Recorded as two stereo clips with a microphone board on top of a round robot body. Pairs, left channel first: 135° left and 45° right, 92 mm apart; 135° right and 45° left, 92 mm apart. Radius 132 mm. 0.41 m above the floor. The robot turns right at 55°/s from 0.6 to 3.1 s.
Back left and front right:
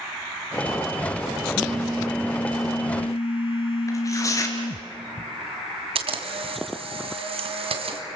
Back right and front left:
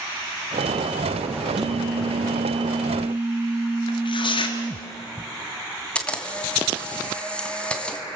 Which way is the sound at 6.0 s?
55° right.